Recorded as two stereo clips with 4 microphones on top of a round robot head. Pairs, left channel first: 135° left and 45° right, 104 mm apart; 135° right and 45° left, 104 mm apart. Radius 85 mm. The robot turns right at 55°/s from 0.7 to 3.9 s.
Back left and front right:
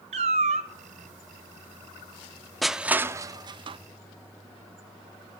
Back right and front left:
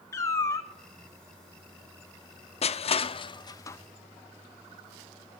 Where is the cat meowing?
70° right, 0.8 m.